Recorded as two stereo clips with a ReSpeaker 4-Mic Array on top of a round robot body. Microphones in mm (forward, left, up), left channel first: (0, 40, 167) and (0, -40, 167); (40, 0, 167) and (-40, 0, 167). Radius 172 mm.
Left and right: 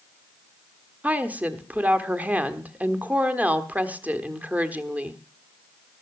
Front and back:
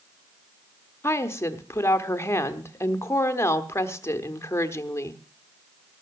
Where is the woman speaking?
30° right, 1.4 m.